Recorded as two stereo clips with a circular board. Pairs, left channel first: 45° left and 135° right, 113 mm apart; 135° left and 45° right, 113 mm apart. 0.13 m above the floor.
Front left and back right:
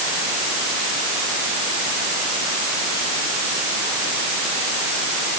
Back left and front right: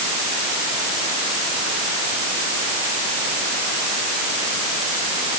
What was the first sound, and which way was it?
Only background noise.